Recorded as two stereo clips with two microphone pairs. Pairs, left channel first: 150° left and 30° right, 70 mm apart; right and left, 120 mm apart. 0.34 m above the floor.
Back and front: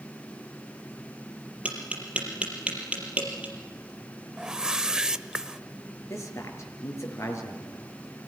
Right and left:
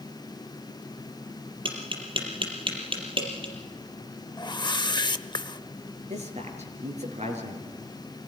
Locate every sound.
1.6 s tapping: 45° left, 5 m
4.4 s a whoosh: 100° right, 0.6 m
6.1 s a man speaking: 105° left, 5 m